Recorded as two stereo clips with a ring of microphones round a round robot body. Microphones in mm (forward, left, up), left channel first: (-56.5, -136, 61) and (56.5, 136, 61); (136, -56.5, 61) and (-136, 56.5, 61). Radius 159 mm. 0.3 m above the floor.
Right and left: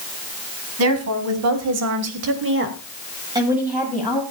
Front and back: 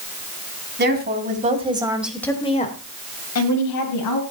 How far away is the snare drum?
No snare drum in this recording.